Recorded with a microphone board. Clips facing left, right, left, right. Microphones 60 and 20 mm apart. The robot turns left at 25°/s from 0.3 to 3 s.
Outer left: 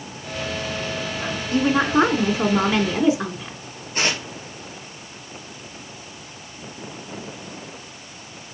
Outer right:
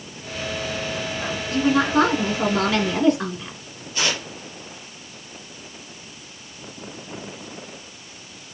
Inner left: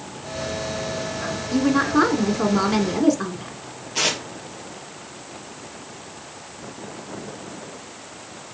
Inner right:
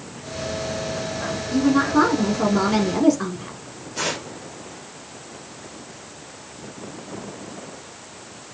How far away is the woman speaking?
About 1.3 m.